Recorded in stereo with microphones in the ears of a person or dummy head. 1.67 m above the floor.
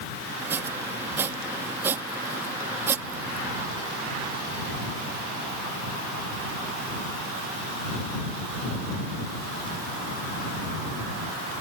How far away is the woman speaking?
No woman speaking in this recording.